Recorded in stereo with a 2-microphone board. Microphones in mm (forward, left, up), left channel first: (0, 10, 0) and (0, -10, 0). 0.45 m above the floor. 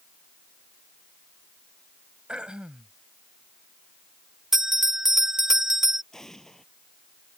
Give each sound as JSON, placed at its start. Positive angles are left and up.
{"t": 2.3, "sound": "throat clearing", "side_deg": -55}
{"t": 4.5, "sound": "a bell", "side_deg": -20}
{"t": 6.1, "sound": "an explosion", "side_deg": 25}